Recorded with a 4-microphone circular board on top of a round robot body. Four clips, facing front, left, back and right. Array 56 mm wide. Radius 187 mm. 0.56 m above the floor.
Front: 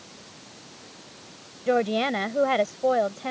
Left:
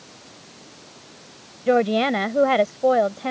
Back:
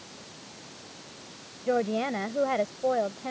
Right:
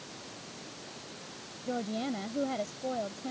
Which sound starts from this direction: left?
A woman speaking, at 1.7 s.